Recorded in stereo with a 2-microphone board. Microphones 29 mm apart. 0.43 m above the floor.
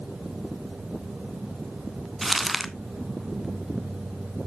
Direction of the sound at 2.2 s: Centre (ahead or behind).